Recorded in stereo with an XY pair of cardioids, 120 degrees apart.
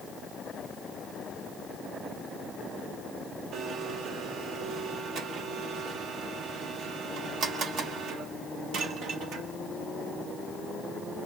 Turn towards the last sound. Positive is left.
turn(degrees=-65)